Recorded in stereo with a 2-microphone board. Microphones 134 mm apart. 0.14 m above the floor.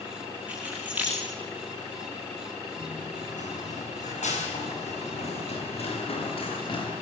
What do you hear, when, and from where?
0.5 s keys jangling: 10° right (ahead or behind), 8 m
2.8 s running footsteps: 80° left, 9.5 m; by 6.9 s 40° left (ahead or behind), 8 m